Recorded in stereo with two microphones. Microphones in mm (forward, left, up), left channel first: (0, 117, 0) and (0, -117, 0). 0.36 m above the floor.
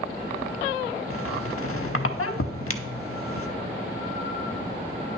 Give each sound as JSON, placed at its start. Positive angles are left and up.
{"t": 1.1, "sound": "a squeak", "side_deg": 85, "distance_m": 0.6}